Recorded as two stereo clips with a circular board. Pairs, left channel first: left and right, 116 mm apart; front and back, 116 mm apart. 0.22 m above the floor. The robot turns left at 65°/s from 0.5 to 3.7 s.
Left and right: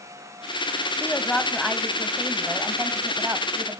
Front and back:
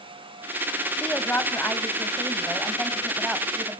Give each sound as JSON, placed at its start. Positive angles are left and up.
{"t": 1.0, "sound": "a woman speaking", "azimuth_deg": 55, "distance_m": 1.3}